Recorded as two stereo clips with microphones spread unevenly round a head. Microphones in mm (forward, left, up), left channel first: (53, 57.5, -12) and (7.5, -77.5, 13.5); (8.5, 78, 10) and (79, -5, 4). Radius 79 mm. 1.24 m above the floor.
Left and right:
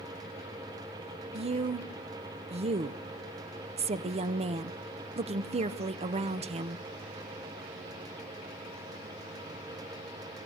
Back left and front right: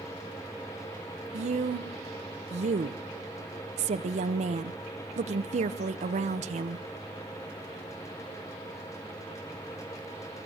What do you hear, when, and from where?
1.3 s a woman speaking: 60° right, 0.7 m